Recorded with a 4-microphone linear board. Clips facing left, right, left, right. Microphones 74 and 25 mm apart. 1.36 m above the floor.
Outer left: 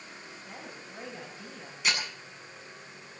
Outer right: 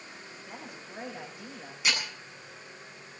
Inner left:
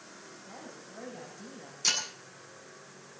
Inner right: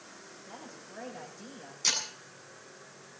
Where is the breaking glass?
5° right (ahead or behind), 8.5 m.